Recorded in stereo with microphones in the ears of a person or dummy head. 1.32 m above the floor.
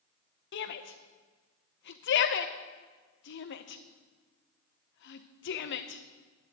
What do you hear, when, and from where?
0.5 s a shout: 55° left (ahead or behind), 1.2 m